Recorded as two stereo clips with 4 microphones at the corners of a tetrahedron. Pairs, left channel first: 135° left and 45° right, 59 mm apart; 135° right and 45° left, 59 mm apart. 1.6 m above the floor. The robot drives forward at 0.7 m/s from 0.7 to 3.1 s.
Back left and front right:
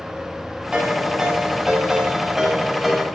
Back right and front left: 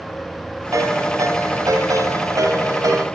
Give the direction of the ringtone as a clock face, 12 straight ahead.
11 o'clock.